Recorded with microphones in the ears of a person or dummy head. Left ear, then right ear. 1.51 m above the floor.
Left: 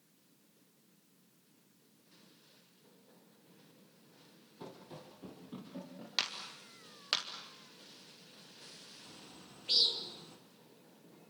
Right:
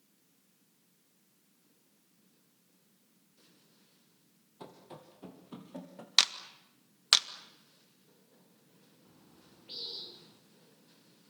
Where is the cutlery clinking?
I don't hear cutlery clinking.